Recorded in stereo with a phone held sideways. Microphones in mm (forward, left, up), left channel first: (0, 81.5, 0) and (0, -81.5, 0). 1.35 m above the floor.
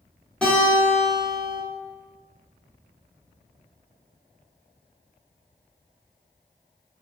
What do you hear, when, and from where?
0.4 s a guitar: 5° left (ahead or behind), 1.1 m